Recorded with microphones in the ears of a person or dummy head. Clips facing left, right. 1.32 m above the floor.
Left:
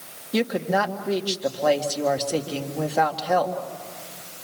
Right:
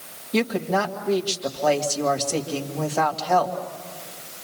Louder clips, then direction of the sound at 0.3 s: Even; 10° left (ahead or behind).